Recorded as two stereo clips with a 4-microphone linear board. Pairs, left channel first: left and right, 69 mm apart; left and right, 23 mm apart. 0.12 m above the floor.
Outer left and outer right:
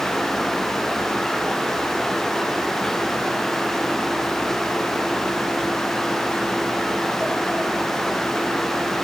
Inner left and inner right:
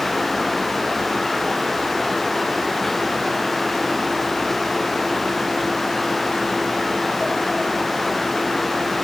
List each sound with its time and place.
Only background noise.